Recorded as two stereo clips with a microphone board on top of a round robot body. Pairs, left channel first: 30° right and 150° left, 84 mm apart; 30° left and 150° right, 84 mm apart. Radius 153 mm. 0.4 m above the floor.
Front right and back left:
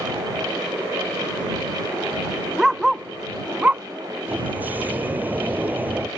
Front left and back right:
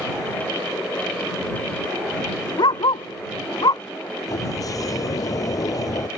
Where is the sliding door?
80° left.